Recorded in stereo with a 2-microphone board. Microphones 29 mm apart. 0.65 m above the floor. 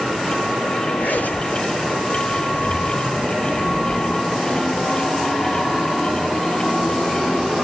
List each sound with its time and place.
1.0 s a zipper: 90° left, 7.5 m